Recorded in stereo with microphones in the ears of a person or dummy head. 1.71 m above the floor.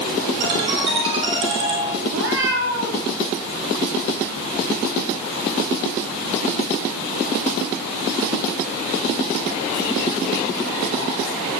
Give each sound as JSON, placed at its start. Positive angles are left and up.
{"t": 0.4, "sound": "a ringtone", "side_deg": -25, "distance_m": 5.5}
{"t": 2.1, "sound": "a cat meowing", "side_deg": -70, "distance_m": 4.5}